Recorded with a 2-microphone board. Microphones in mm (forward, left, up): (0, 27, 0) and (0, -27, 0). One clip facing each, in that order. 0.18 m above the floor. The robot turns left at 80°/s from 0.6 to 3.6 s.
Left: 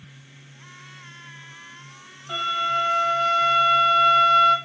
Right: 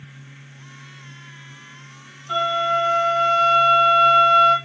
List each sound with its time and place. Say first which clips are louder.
2.3 s a flute: right 4 dB; 10° left, 2.0 m; by 4.5 s 95° right, 2.0 m